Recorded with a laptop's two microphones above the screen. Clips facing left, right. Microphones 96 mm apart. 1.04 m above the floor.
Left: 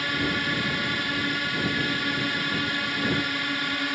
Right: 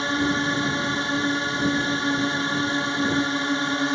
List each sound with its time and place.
0.0 s a drone: 25° right (ahead or behind)